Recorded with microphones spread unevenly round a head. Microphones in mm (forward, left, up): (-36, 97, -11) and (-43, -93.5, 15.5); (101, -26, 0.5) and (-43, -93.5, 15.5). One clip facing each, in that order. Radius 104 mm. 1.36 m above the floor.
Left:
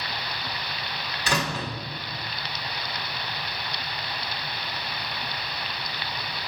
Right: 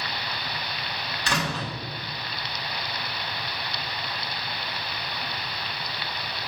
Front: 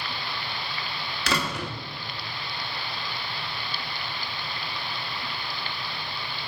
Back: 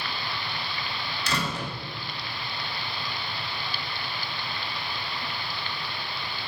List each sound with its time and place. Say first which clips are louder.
1.3 s a door slam: left 1 dB, front 2 dB; 5° left, 1.9 m